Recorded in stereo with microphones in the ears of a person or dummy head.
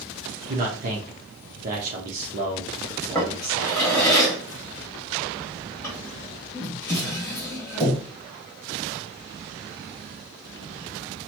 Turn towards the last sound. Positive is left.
turn(degrees=5)  # may be behind; listen again after turning